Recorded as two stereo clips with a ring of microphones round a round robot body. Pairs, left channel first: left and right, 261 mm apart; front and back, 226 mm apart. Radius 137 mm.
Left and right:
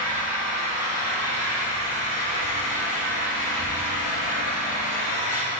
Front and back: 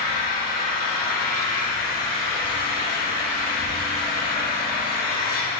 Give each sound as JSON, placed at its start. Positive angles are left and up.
{"t": 0.0, "sound": "an engine running", "azimuth_deg": 40, "distance_m": 1.7}